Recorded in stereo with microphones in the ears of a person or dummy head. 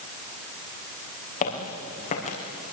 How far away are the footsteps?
About 5 m.